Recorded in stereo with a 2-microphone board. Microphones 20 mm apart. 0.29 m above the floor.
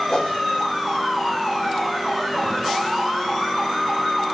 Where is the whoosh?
45° left (ahead or behind), 1.4 m.